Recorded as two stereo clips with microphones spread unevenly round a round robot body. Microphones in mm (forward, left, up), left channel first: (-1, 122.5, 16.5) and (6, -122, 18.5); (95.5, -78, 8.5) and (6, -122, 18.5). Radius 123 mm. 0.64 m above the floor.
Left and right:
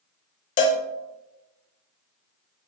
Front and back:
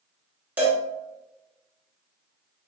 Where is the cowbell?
130° left, 0.6 m.